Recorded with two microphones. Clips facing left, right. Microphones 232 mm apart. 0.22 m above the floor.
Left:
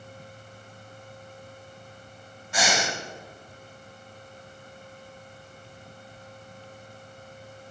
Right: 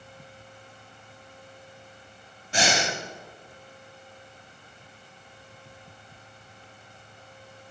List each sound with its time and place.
2.5 s breathing: 30° right (ahead or behind), 0.9 m